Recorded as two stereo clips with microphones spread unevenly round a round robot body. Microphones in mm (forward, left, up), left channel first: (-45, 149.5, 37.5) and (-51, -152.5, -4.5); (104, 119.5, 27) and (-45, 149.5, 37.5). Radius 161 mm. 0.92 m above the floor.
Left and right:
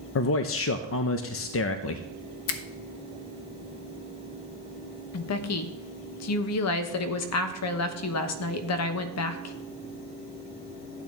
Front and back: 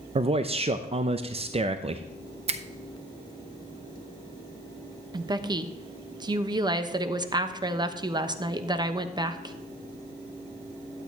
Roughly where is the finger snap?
Behind left.